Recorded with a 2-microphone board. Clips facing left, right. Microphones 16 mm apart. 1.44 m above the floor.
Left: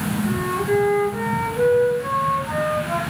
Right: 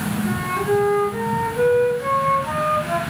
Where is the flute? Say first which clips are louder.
Right 1 dB; 45° right (ahead or behind), 1.1 m.